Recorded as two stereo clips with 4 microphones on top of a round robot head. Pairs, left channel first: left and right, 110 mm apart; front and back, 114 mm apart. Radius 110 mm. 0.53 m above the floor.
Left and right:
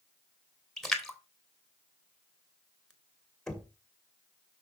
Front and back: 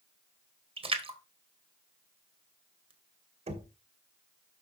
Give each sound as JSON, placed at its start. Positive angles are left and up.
{"t": 0.8, "sound": "a splash", "azimuth_deg": 175, "distance_m": 2.0}
{"t": 3.5, "sound": "knocking", "azimuth_deg": 175, "distance_m": 1.9}